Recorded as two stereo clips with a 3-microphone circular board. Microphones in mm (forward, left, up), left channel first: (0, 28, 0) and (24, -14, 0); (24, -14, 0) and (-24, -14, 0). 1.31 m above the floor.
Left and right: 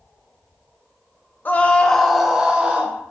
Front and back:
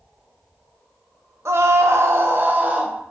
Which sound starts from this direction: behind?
A scream, at 1.4 s.